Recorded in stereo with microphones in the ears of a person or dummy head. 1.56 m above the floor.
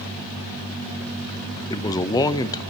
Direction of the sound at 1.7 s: 20° left (ahead or behind).